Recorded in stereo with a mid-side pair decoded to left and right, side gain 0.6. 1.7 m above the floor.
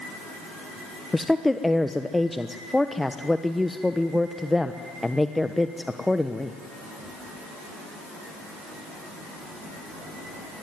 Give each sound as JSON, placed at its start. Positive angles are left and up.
{"t": 1.1, "sound": "a woman speaking", "azimuth_deg": 5, "distance_m": 1.1}